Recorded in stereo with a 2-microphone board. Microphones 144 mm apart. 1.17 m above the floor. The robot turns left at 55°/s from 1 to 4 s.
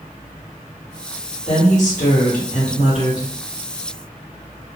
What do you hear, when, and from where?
1.5 s a woman speaking: 130° left, 1.1 m; by 3.3 s 25° left, 1.1 m